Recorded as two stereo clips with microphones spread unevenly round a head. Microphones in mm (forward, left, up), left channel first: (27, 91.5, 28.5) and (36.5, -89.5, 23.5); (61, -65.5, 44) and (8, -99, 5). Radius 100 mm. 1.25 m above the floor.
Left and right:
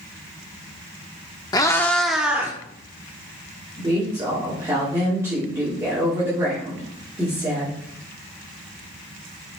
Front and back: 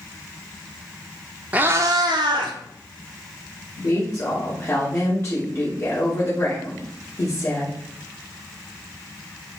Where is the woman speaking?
10° right, 3 m.